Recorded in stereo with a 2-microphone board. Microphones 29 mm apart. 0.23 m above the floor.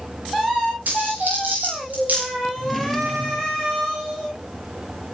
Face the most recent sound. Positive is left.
turn(degrees=5)  # may be behind; listen again after turning